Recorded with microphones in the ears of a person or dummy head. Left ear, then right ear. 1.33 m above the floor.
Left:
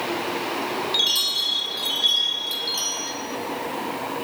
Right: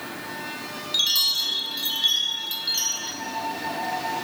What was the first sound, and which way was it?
A chime, 5° right (ahead or behind).